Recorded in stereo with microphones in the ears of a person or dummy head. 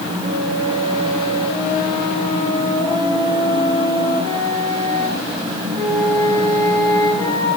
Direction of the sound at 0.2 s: 25° left (ahead or behind).